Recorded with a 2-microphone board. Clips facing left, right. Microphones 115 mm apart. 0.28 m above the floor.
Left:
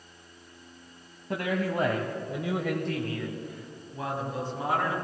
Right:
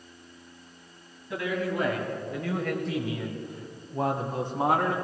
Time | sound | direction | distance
1.3 | a man speaking | 55° left (ahead or behind) | 1.6 m